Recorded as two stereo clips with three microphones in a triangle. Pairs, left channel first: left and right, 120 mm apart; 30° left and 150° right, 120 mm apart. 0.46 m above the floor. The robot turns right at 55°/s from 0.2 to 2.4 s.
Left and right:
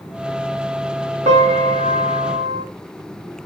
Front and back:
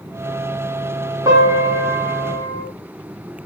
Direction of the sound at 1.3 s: 90° right.